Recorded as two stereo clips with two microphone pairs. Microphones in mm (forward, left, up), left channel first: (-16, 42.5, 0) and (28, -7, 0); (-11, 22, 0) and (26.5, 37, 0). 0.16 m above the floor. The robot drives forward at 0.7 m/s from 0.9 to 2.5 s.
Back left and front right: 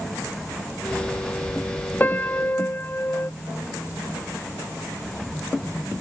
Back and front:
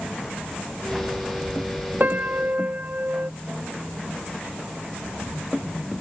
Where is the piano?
70° left.